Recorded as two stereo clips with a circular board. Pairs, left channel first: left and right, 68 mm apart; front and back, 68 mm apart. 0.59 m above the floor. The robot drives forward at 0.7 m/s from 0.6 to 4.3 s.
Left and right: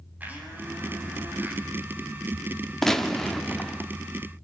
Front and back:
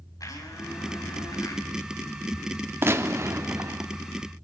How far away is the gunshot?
About 1.5 m.